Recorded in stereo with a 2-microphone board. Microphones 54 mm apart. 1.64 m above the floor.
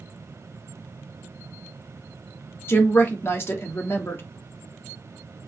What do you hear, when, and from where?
2.7 s a woman speaking: 50° left (ahead or behind), 1.0 m